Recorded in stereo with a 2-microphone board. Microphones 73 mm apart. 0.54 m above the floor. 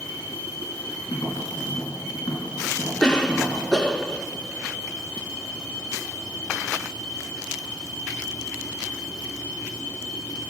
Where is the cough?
10° left (ahead or behind), 0.8 m.